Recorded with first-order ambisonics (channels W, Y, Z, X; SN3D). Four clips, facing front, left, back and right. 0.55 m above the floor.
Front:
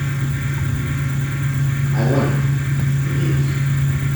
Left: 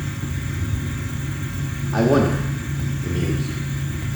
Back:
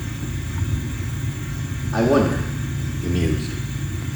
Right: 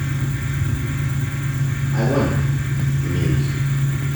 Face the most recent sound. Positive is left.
turn(degrees=-145)